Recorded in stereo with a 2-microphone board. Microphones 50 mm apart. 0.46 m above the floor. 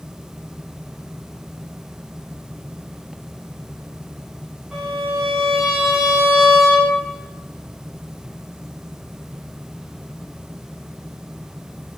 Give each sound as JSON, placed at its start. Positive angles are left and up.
{"t": 4.7, "sound": "a violin", "side_deg": 0, "distance_m": 2.0}